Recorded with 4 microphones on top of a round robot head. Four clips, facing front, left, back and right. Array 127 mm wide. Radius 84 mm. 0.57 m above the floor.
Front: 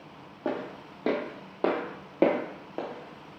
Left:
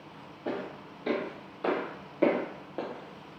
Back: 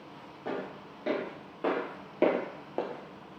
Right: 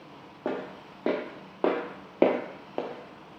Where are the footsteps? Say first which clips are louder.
Right 2 dB, front 4 dB; 50° right, 1.5 m; by 3.4 s 175° right, 0.6 m.